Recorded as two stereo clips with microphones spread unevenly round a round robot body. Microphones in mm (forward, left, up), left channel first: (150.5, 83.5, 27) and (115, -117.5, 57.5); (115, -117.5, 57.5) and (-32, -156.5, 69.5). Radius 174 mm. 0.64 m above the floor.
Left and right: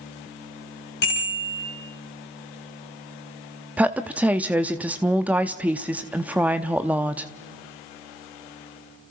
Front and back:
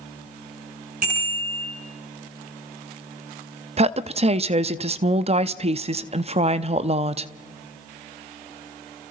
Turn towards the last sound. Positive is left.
turn(degrees=170)